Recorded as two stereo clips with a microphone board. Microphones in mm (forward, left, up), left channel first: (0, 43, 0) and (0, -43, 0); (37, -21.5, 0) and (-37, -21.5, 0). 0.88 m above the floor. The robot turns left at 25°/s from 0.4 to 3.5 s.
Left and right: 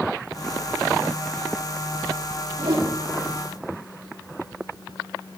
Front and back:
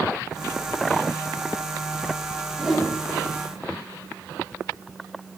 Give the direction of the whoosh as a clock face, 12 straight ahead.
3 o'clock.